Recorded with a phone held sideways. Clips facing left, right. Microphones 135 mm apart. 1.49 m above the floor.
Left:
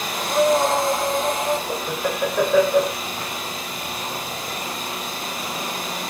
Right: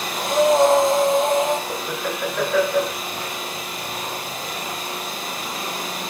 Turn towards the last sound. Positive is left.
turn(degrees=20)  # may be behind; listen again after turning